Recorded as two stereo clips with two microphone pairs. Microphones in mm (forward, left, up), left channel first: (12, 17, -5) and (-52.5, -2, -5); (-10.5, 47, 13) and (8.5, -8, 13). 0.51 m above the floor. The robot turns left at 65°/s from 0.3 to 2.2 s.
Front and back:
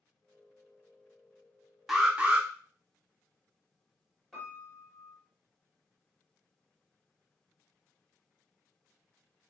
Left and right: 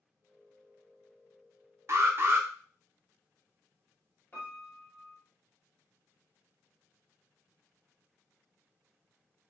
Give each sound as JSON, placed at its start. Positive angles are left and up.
{"t": 1.9, "sound": "an alarm", "azimuth_deg": -80, "distance_m": 0.5}
{"t": 4.3, "sound": "a piano", "azimuth_deg": 105, "distance_m": 1.2}